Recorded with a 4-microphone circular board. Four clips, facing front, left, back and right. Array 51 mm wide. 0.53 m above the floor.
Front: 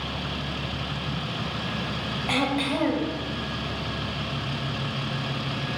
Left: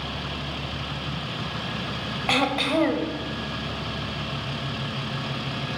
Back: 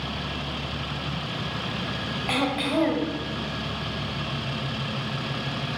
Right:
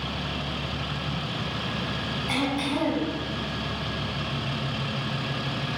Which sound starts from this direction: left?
Throat clearing, at 2.3 s.